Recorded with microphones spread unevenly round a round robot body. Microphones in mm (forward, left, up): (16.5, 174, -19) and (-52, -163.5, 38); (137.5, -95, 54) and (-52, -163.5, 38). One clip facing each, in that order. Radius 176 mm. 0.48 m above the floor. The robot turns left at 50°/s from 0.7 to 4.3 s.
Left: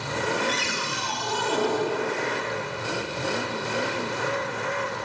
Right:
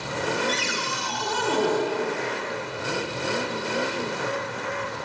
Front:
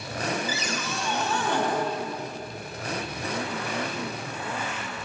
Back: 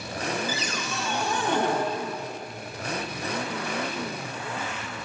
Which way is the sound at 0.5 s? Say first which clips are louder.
Right 1 dB, even; 65° right.